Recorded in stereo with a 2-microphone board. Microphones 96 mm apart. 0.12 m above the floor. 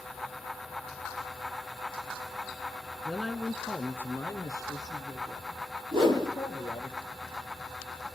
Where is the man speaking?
Centre (ahead or behind), 1.1 m; by 6.9 s 60° left (ahead or behind), 2 m.